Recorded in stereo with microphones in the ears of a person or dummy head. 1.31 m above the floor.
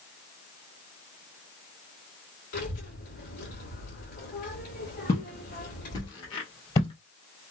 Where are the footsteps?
25° left (ahead or behind), 1.4 m; by 6.9 s 30° left (ahead or behind), 2.0 m.